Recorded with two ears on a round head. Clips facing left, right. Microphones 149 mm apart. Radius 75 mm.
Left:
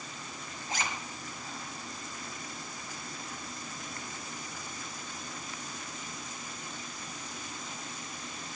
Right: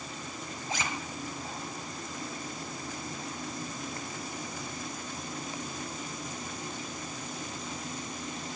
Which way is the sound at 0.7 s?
70° right (ahead or behind).